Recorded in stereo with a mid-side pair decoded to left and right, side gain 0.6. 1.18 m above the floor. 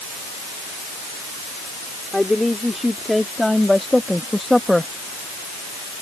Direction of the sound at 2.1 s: 5° left.